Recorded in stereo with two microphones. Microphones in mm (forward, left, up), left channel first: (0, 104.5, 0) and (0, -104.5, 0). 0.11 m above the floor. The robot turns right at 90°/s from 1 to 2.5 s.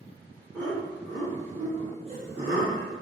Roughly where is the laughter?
Centre.